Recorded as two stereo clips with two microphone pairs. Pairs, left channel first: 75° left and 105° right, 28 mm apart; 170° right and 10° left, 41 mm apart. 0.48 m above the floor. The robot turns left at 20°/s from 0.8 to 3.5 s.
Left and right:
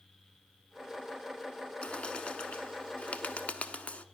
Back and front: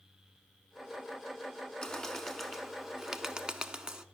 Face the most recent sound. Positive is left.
turn(degrees=80)